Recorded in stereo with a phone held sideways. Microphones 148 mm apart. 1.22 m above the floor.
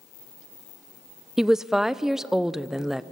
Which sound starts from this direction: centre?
A woman speaking, at 1.4 s.